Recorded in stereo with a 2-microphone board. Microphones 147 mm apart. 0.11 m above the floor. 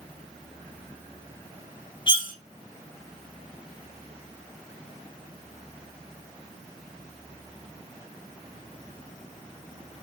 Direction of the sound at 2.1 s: 35° left (ahead or behind).